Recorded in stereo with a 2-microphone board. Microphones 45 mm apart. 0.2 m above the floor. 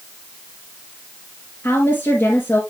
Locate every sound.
1.6 s a woman speaking: 50° left (ahead or behind), 3 m